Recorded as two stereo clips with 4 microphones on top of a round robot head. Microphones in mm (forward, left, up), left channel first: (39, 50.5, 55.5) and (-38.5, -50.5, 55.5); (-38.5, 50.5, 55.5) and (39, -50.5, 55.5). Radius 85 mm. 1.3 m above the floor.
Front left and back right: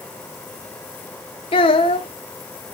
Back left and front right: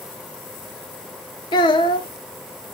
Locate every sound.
1.5 s a child speaking: 85° left, 0.6 m